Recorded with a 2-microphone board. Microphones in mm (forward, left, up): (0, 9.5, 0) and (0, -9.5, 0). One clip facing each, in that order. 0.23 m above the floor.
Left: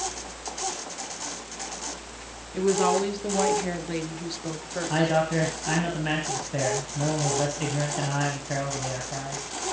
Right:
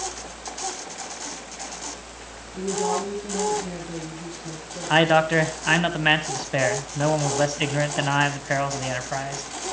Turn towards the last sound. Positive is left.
turn(degrees=-40)  # may be behind; listen again after turning